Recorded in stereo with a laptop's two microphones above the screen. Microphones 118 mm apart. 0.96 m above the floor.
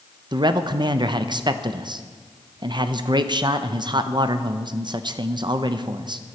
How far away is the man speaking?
About 0.5 m.